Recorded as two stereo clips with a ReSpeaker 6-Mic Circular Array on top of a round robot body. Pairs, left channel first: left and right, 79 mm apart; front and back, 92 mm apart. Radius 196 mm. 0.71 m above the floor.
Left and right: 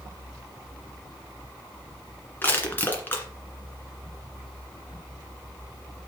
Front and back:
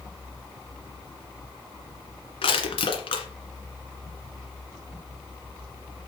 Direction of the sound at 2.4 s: 20° left.